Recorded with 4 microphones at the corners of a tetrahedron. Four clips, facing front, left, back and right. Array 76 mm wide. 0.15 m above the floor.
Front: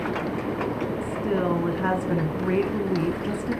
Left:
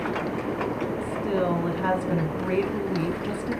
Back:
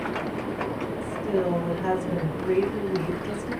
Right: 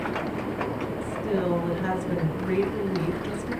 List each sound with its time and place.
1.0 s a woman speaking: 10° left, 2 m